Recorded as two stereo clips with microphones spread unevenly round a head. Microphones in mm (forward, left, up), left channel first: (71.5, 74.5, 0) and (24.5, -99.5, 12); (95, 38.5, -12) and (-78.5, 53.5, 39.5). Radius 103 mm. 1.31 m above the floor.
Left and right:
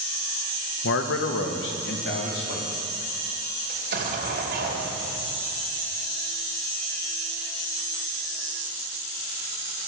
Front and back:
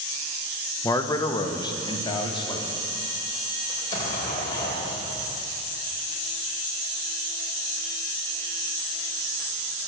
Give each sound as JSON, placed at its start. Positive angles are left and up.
{"t": 0.8, "sound": "a man speaking", "azimuth_deg": 65, "distance_m": 1.1}
{"t": 3.7, "sound": "an explosion", "azimuth_deg": -85, "distance_m": 3.0}